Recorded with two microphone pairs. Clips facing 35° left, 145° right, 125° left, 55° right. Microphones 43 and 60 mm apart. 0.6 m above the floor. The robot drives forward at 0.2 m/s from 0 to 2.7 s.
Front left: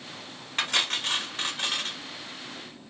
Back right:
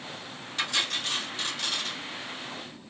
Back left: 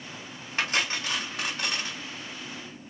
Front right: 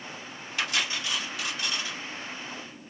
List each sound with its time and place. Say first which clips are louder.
0.6 s cutlery clinking: front left 2 dB, back left 2 dB; 75° left, 1.2 m; by 2.0 s 90° left, 1.2 m